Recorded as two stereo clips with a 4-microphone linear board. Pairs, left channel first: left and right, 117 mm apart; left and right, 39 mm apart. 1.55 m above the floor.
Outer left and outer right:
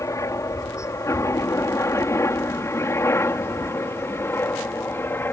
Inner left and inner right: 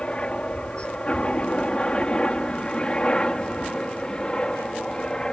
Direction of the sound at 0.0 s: 25° left (ahead or behind).